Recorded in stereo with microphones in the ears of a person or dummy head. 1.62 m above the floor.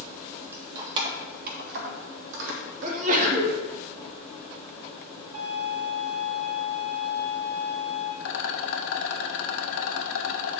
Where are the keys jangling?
15° right (ahead or behind), 0.8 m; by 2.9 s 70° right (ahead or behind), 1.5 m.